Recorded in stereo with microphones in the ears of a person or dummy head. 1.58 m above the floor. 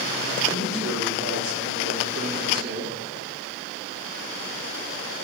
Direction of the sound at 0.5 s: 55° right (ahead or behind).